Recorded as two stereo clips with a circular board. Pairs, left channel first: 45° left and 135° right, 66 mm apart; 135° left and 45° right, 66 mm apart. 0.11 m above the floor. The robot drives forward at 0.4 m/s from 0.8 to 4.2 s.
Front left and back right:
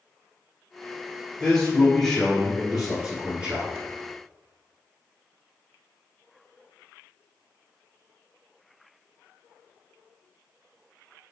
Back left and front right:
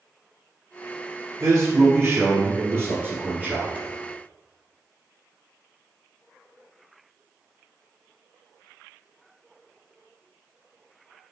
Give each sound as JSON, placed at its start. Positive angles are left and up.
{"t": 1.4, "sound": "a man speaking", "azimuth_deg": -35, "distance_m": 1.6}